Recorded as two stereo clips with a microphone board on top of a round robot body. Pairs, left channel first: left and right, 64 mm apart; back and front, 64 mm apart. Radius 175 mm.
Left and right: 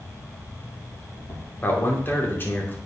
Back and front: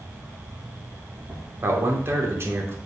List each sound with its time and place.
0.0 s an insect: 55° left, 3 m
1.6 s a man speaking: 40° left, 2.5 m